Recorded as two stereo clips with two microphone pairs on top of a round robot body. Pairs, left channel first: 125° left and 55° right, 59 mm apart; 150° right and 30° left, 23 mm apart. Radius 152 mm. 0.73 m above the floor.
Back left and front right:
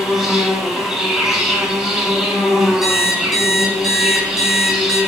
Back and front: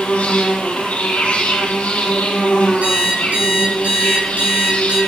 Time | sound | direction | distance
0.0 | an insect | 140° right | 3 m
2.8 | an alarm clock | 25° left | 5.5 m